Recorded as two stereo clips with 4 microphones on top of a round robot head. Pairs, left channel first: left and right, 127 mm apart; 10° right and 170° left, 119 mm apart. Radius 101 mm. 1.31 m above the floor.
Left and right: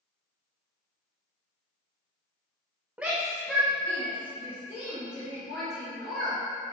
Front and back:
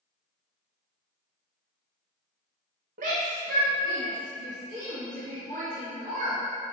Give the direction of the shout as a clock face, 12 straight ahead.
6 o'clock.